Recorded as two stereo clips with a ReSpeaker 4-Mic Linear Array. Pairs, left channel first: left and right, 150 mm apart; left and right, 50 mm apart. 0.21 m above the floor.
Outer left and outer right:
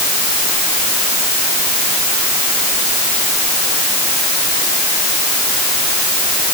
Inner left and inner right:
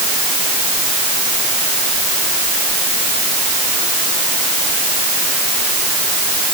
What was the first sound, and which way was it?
Only background noise.